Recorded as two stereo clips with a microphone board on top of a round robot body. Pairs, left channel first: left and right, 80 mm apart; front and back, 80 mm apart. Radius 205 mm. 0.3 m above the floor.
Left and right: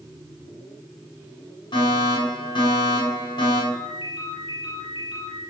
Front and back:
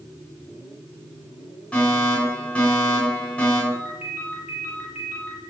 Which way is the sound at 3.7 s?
110° left.